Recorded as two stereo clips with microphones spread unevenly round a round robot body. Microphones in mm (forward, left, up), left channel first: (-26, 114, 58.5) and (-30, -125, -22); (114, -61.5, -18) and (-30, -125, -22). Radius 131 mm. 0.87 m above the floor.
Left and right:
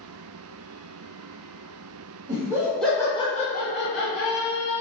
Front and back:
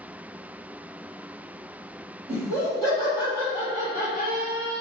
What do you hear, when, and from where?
2.3 s laughter: 155° right, 1.6 m; by 4.8 s 115° left, 2 m